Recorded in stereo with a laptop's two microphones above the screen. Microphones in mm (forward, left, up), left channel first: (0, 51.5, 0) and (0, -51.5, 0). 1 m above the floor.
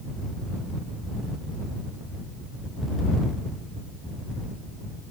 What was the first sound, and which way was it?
Only background noise.